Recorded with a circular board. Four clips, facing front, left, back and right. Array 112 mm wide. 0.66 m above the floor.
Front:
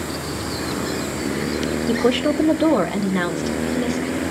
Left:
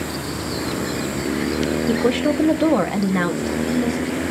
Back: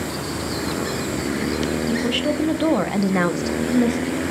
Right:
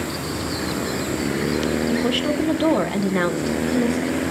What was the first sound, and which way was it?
A woman speaking, 40° left.